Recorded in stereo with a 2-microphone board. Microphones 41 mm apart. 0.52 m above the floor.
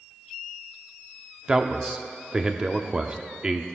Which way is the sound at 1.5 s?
20° right (ahead or behind).